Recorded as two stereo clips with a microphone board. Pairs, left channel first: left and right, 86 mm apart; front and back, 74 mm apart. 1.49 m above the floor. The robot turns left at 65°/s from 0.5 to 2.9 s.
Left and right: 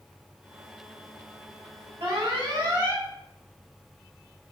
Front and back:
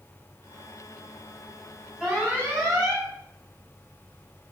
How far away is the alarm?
About 3.5 m.